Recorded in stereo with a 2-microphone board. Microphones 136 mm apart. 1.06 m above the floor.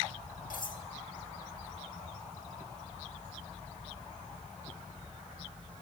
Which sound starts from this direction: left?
Cutlery clinking, at 0.5 s.